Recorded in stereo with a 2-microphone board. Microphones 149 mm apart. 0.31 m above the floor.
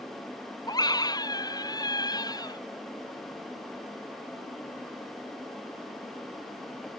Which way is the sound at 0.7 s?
25° left (ahead or behind).